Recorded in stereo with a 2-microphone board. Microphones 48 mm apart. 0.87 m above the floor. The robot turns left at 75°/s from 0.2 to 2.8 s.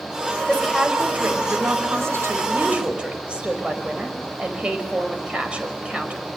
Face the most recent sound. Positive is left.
turn(degrees=-155)